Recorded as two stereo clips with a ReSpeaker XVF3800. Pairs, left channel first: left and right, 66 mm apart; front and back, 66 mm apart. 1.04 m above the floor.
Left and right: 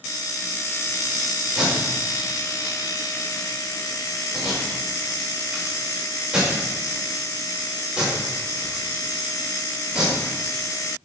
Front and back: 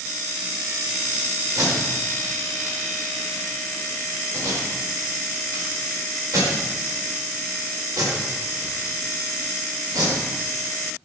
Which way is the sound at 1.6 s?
170° right.